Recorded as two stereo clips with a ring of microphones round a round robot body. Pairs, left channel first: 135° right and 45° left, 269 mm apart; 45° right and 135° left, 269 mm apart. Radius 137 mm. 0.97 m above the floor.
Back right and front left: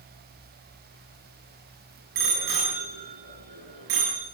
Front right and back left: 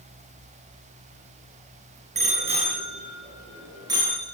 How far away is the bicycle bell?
About 9.5 m.